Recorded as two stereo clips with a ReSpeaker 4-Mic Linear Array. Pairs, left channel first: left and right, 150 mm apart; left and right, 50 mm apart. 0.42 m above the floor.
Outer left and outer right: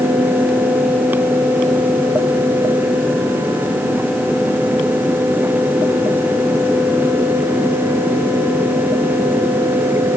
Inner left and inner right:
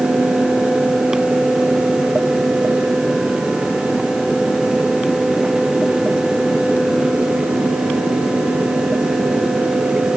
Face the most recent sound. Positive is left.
No sound to turn to.